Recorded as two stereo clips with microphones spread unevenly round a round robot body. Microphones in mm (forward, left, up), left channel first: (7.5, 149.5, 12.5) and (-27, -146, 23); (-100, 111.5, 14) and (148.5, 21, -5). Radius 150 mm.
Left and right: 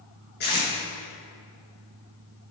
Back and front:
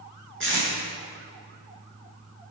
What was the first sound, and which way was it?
Tape being pulled, 25° left.